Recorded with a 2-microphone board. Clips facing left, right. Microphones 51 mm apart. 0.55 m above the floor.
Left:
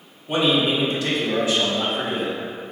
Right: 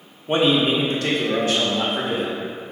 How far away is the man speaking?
About 0.7 m.